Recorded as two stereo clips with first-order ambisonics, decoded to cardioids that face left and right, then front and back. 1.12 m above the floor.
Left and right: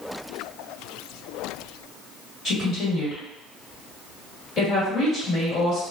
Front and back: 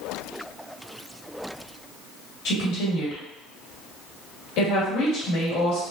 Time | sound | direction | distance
2.5 | a woman speaking | 25° left | 1.7 m